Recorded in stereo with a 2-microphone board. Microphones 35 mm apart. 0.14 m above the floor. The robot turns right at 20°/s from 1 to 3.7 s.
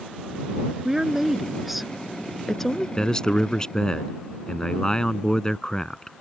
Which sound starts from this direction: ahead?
A woman speaking, at 0.8 s.